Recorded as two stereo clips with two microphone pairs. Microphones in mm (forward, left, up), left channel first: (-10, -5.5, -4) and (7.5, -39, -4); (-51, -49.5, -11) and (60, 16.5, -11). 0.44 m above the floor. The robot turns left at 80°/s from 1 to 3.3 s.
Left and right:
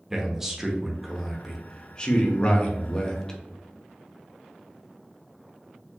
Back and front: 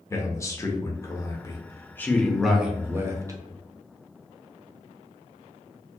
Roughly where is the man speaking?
Behind right.